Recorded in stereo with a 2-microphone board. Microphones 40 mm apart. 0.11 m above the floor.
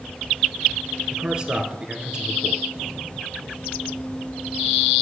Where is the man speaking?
20° right (ahead or behind), 1.5 m.